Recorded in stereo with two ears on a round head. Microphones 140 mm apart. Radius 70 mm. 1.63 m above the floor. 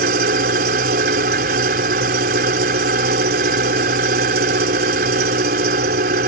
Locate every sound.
0.0 s an engine running: 60° right (ahead or behind)